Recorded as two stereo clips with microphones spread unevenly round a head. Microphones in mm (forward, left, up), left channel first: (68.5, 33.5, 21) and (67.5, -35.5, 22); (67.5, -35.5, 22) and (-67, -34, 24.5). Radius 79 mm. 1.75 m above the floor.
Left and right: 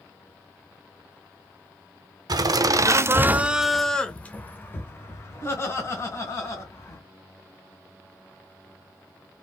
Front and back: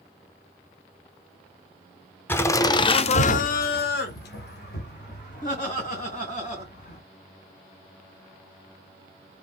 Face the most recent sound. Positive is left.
turn(degrees=45)